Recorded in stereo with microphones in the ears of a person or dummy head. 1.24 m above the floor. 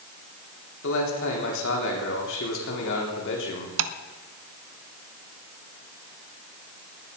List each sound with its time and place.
0.8 s a man speaking: 70° left (ahead or behind), 4 m
3.8 s tapping: 75° right (ahead or behind), 0.9 m